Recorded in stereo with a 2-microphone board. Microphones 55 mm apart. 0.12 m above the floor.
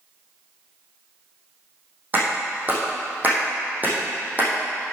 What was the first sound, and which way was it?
A clap, 35° right (ahead or behind).